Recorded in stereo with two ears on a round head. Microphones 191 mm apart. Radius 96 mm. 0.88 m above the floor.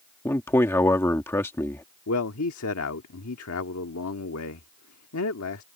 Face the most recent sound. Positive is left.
turn(degrees=75)  # may be behind; listen again after turning